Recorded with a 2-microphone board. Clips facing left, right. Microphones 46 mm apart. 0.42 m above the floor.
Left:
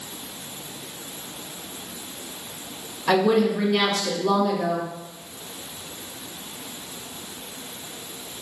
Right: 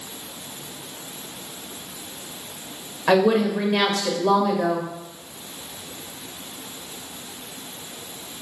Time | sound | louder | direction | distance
3.1 | a woman speaking | right 1 dB | 35° right (ahead or behind) | 1.2 m